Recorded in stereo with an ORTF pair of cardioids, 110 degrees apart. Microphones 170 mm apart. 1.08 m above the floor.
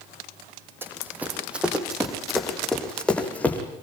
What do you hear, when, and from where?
0.8 s running footsteps: 15° right, 3.5 m; by 3.6 s 10° left, 4 m